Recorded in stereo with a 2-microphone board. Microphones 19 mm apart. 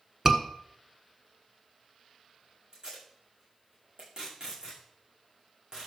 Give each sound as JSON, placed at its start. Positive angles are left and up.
{"t": 0.2, "sound": "a scream", "side_deg": -20, "distance_m": 1.5}
{"t": 2.7, "sound": "tape being pulled", "side_deg": -40, "distance_m": 7.0}